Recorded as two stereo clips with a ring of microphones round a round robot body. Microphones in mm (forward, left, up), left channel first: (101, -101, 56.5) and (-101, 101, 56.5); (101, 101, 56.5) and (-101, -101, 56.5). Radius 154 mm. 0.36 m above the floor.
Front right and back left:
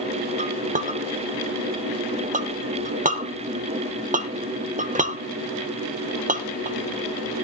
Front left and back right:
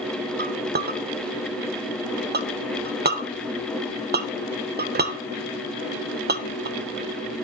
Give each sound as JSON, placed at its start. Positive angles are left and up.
{"t": 0.4, "sound": "a clink", "azimuth_deg": -175, "distance_m": 1.1}